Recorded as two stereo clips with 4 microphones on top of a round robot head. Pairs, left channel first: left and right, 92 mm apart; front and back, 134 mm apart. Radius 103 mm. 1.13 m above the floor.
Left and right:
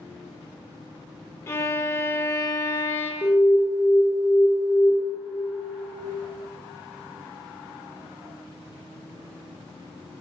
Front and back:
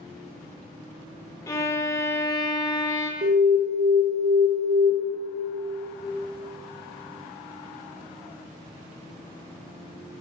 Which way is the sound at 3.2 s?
150° left.